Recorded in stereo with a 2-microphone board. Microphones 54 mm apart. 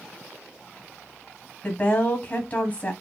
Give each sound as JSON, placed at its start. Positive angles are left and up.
{"t": 1.6, "sound": "a woman speaking", "side_deg": 30, "distance_m": 1.3}